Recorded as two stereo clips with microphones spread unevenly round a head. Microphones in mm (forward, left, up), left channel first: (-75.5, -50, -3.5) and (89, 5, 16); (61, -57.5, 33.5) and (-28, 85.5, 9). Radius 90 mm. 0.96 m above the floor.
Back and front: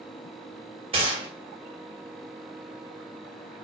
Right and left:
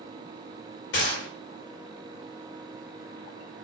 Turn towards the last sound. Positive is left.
turn(degrees=-40)